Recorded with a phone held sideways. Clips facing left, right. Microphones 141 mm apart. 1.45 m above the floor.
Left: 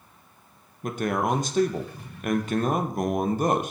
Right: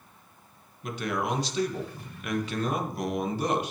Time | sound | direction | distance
0.8 | a man speaking | 45° left (ahead or behind) | 1.1 m